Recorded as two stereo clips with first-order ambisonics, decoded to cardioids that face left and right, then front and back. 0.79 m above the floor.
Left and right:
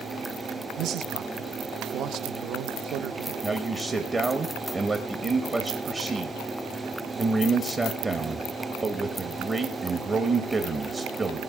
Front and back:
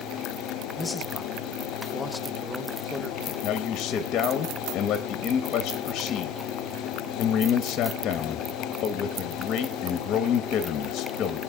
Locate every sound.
0.8 s a man speaking: 75° right, 0.6 m
3.4 s a man speaking: 25° right, 0.7 m